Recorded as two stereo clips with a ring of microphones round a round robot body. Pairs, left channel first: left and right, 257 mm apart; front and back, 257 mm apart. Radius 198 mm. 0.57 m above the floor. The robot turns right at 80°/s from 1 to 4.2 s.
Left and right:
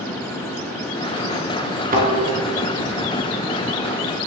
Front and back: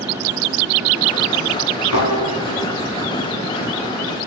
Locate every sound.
1.9 s a thud: 35° right, 3 m; by 2.1 s 20° right, 3 m